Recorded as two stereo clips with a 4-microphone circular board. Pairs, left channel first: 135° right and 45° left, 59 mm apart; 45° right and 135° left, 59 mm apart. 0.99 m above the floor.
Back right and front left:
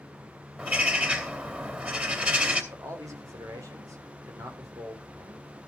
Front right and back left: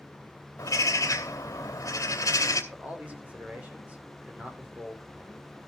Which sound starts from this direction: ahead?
A bird, at 0.6 s.